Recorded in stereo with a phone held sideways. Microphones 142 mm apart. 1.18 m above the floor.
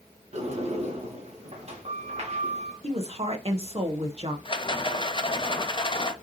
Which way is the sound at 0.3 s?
50° right (ahead or behind).